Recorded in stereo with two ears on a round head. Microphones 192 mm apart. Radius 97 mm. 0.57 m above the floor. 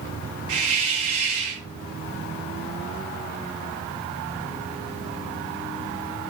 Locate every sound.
0.5 s a hiss: 70° right (ahead or behind), 3 m